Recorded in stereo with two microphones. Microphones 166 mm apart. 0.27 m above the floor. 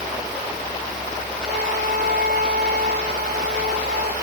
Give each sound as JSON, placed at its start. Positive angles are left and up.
{"t": 1.4, "sound": "a flute", "side_deg": -60, "distance_m": 6.0}